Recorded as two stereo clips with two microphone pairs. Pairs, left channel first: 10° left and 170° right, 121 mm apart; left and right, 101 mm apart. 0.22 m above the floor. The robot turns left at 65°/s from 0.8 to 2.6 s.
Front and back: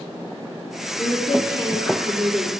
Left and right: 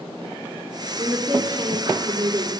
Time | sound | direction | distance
1.0 | a woman speaking | 5° left | 1.9 m